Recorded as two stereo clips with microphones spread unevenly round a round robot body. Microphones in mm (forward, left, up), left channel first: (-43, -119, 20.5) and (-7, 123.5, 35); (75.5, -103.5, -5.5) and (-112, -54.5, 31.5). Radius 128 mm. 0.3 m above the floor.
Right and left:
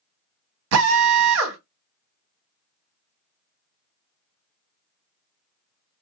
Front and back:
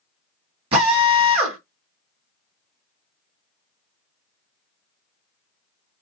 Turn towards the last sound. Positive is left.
turn(degrees=95)